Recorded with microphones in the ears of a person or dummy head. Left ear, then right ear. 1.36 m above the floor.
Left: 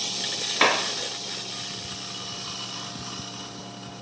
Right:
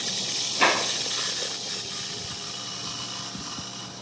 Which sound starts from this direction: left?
A clap, at 0.6 s.